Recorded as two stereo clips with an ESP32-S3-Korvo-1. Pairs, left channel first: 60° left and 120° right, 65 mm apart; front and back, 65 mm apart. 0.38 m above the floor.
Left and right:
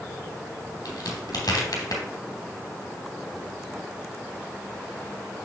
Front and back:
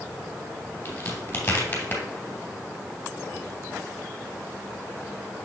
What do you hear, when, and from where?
0.8 s a crack: 50° left, 2 m